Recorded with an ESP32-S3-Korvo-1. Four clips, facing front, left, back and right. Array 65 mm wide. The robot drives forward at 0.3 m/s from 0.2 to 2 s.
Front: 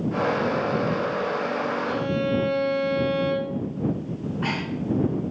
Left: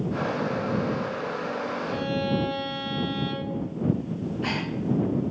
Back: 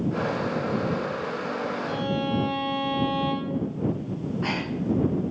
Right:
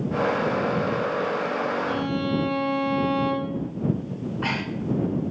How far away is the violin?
About 6.5 m.